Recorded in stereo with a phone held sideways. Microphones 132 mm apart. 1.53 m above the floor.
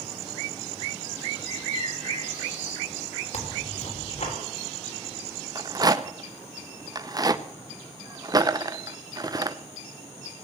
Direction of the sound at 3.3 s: 70° left (ahead or behind).